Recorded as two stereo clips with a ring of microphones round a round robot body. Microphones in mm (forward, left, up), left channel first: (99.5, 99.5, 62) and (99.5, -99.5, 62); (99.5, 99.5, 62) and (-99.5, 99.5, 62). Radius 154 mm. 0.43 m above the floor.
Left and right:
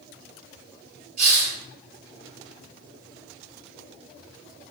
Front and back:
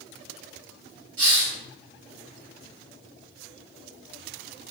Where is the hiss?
145° right, 2 m.